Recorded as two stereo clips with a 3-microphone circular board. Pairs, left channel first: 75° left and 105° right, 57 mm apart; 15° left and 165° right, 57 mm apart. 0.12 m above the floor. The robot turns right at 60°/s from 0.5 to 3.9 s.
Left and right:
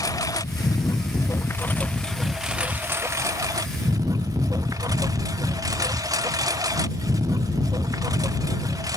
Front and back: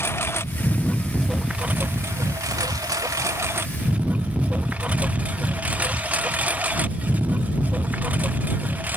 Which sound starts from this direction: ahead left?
A lawn mower, at 0.0 s.